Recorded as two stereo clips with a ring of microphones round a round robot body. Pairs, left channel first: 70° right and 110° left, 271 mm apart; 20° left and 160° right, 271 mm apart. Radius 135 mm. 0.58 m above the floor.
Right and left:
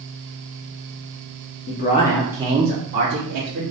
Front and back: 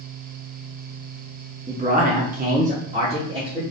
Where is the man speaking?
100° right, 0.7 m; by 3.6 s 130° left, 1.2 m.